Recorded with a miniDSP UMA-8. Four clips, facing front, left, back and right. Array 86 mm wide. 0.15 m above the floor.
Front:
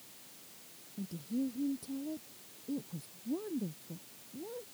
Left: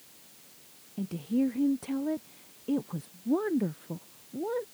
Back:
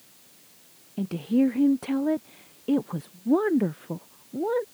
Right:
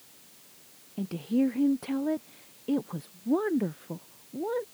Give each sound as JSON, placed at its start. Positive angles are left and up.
{"t": 1.0, "sound": "a woman speaking", "azimuth_deg": -160}